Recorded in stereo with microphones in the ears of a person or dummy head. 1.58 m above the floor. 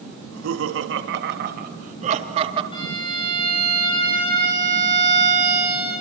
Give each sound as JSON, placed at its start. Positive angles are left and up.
{"t": 0.2, "sound": "laughter", "side_deg": -90, "distance_m": 3.0}
{"t": 2.7, "sound": "a violin", "side_deg": 25, "distance_m": 7.5}